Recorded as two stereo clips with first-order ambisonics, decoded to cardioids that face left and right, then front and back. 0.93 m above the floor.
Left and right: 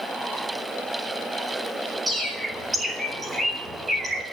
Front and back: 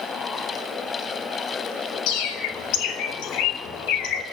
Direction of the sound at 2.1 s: 15° right.